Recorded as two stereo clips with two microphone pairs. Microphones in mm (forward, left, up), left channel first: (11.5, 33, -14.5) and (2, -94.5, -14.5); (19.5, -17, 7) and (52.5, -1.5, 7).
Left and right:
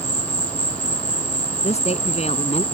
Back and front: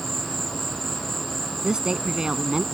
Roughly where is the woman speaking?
Left.